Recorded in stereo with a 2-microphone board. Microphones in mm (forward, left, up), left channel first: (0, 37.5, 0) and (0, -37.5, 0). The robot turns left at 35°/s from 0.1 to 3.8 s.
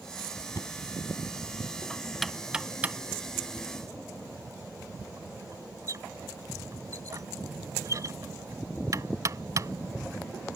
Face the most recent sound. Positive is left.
turn(degrees=-50)  # may be behind; listen again after turning